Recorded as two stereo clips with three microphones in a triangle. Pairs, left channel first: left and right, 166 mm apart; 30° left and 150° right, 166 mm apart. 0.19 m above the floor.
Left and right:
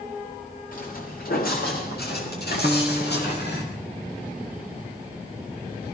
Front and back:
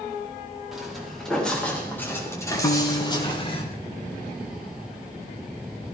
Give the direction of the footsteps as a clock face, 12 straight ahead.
8 o'clock.